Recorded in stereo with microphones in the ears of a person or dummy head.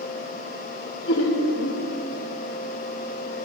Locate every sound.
1.1 s laughter: 60° left (ahead or behind), 2.0 m